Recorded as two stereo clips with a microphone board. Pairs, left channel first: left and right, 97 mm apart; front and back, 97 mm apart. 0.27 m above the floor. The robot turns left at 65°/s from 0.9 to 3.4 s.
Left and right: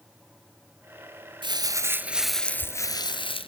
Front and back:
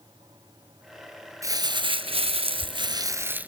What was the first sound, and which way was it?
Crumpling, 125° right.